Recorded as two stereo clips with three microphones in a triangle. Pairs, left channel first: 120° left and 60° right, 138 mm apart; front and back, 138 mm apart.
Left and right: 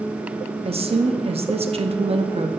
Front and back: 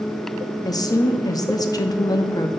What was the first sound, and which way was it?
A woman speaking, 55° right.